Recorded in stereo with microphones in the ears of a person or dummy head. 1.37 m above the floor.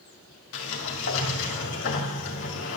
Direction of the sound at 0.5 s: 70° left (ahead or behind).